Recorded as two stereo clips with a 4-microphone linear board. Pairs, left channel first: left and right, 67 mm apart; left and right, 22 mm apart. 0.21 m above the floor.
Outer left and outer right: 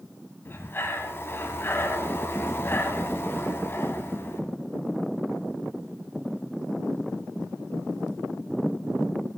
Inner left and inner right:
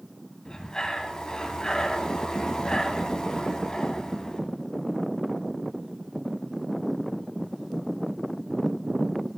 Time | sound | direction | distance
0.5 | breathing | 35° left (ahead or behind) | 1.1 m